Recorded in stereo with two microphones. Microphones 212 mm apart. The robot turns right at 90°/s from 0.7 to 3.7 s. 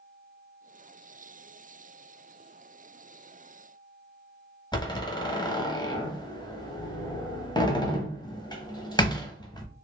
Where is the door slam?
20° left (ahead or behind), 0.6 m.